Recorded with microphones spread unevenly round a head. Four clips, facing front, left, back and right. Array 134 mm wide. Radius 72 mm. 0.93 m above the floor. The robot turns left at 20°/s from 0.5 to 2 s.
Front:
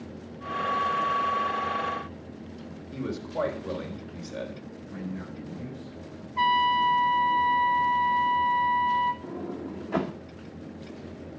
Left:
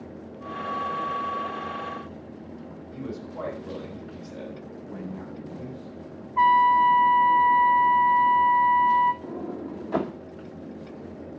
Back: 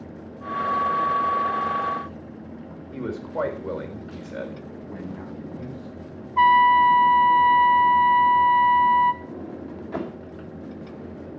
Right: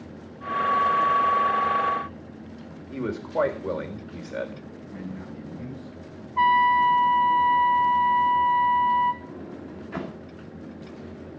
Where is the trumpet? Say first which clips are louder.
Left 1 dB, back 8 dB; 140° left, 0.8 m.